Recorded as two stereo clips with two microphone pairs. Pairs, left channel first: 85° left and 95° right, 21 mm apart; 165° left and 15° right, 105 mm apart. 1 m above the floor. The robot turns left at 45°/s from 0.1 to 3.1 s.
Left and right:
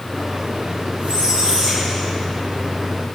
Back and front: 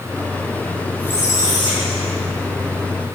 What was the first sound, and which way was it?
A squeak, 125° right.